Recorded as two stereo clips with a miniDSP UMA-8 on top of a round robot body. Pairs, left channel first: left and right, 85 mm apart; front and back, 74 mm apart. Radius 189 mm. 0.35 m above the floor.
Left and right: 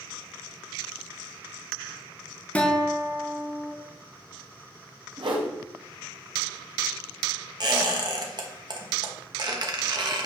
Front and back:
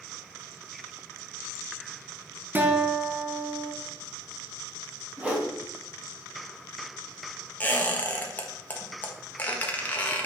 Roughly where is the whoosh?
Right.